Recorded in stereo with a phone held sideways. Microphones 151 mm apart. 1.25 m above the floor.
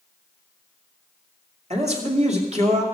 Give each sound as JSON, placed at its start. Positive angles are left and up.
{"t": 1.7, "sound": "a man speaking", "side_deg": -45, "distance_m": 2.5}